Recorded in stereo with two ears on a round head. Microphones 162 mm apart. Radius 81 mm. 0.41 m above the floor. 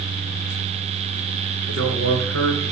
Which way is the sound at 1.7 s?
75° right (ahead or behind).